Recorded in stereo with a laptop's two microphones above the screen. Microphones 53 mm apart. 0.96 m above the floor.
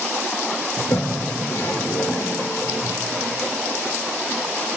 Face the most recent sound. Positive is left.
turn(degrees=60)  # may be behind; listen again after turning